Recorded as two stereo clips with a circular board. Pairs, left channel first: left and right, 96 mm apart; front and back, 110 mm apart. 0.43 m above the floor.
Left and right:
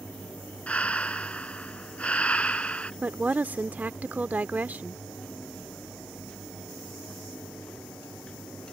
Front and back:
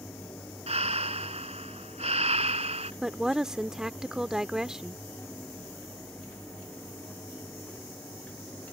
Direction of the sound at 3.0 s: 110° right.